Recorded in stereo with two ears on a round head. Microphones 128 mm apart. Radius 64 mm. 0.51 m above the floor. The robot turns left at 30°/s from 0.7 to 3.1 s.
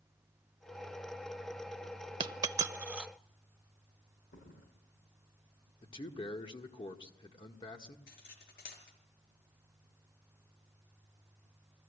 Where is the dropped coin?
35° right (ahead or behind), 0.6 m; by 3.1 s 5° right (ahead or behind), 0.6 m.